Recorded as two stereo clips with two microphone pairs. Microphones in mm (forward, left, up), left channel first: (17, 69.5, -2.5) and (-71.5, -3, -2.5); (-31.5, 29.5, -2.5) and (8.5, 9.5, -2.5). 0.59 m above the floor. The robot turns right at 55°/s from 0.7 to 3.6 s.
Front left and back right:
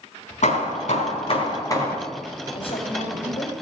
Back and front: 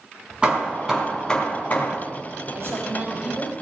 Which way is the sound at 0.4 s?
45° left.